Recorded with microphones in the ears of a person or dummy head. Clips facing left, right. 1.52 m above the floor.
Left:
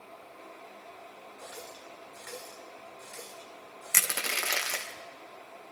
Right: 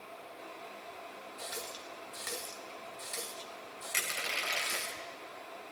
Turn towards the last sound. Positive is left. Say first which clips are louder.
# left 5 dB
turn(degrees=60)  # may be behind; listen again after turning